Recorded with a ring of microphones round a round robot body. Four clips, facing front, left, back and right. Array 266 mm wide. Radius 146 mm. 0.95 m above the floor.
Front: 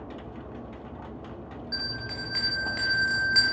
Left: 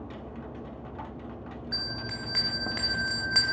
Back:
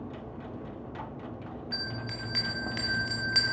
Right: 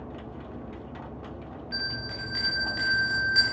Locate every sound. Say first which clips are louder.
1.7 s a bell: right 4 dB, front 3 dB; 110° left, 0.6 m